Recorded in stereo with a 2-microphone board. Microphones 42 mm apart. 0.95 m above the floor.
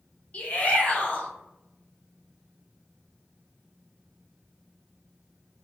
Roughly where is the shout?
Left.